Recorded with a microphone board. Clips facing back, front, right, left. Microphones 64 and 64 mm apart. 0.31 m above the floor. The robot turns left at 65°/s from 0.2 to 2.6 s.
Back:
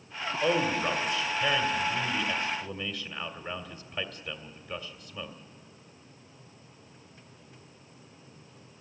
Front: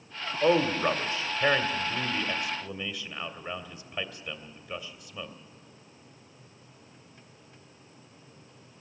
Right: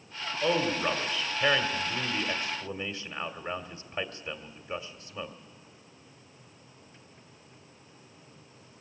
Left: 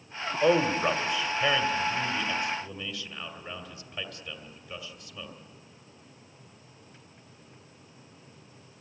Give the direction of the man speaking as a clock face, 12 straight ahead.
10 o'clock.